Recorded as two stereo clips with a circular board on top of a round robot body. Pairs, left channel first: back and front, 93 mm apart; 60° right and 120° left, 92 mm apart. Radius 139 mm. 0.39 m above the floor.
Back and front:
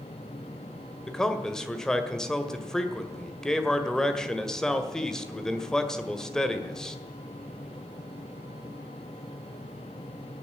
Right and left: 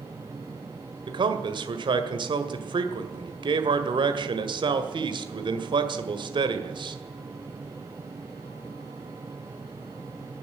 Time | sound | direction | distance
1.1 | a man speaking | 95° left | 1.9 m